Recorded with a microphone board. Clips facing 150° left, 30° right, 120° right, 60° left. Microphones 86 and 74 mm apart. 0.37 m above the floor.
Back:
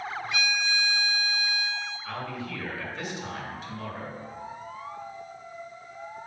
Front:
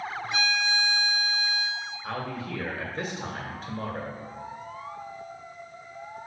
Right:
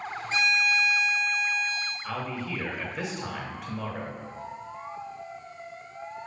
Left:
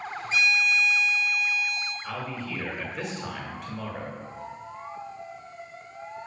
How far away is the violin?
About 1.8 m.